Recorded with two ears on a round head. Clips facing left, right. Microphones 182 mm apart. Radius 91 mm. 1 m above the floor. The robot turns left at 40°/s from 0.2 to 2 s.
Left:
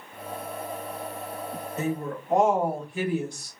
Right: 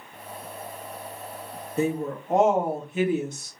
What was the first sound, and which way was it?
A woman speaking, 25° right (ahead or behind).